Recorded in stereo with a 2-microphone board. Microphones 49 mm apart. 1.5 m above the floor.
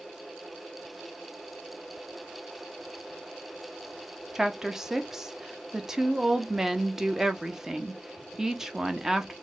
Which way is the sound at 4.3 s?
10° right (ahead or behind).